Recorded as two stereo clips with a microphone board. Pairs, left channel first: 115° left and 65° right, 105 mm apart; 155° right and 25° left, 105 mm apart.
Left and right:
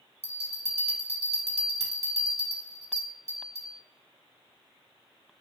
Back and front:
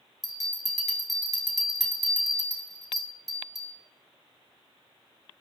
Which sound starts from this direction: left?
A bell, at 0.2 s.